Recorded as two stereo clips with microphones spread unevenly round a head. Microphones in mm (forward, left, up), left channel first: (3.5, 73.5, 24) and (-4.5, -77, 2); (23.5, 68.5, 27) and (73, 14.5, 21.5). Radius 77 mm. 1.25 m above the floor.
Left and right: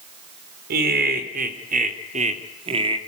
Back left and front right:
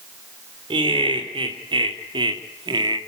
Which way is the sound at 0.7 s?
65° right.